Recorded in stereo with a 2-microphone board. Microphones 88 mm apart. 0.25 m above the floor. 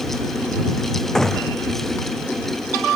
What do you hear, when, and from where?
1.1 s a gunshot: 5° left (ahead or behind)